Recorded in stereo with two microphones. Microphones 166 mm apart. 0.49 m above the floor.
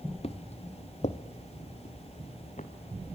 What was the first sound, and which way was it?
Footsteps, 40° left (ahead or behind).